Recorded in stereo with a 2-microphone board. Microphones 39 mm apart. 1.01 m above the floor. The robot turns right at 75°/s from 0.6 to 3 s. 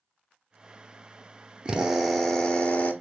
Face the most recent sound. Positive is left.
turn(degrees=65)